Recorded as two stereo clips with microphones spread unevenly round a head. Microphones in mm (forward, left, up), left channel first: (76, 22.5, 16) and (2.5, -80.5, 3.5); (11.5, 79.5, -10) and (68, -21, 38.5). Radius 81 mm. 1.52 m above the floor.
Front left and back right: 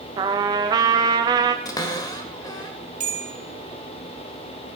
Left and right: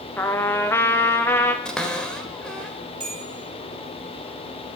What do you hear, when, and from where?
0.2 s a trumpet: 175° left, 0.6 m
1.6 s a cupboard door: 15° left, 1.7 m
3.0 s a bell: 110° right, 1.8 m